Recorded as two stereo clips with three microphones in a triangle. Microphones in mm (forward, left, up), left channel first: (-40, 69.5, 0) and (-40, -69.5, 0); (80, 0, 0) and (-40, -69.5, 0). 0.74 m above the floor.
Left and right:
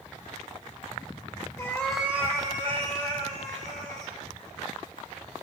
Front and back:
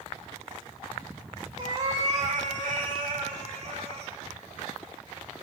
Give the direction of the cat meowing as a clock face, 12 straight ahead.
7 o'clock.